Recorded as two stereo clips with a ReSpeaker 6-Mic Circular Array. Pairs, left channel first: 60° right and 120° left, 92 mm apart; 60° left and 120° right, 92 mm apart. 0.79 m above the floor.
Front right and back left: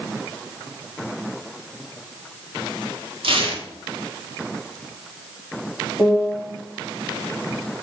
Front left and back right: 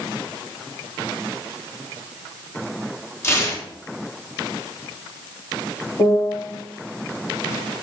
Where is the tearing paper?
120° left, 1.4 m.